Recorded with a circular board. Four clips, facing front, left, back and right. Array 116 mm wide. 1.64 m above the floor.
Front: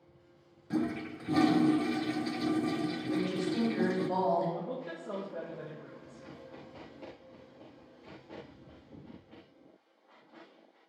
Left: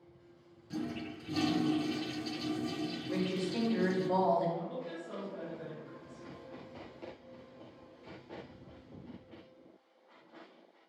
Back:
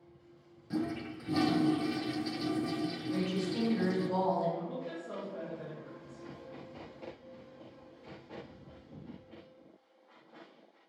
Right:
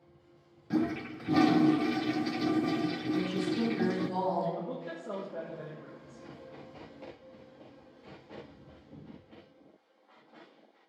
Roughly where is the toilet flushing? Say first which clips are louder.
Right 8 dB, front 2 dB; right.